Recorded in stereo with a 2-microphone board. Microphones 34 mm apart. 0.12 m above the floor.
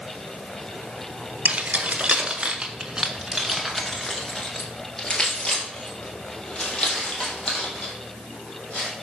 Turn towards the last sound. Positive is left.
turn(degrees=35)  # may be behind; listen again after turning